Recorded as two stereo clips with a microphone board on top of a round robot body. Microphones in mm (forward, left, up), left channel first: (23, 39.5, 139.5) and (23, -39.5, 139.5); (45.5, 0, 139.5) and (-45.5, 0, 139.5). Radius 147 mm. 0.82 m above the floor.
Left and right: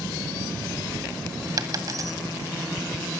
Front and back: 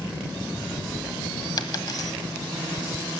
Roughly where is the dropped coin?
Ahead right.